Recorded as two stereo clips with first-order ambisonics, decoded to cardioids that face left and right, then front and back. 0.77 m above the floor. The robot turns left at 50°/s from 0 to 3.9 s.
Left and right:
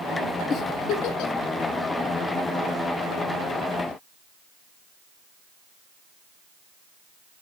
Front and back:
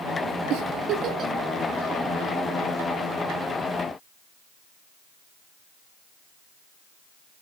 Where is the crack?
No crack in this recording.